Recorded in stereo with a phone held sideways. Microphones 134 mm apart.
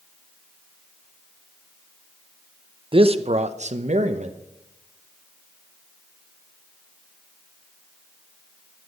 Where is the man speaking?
45° right (ahead or behind), 0.6 m; by 4.4 s 60° right (ahead or behind), 0.9 m.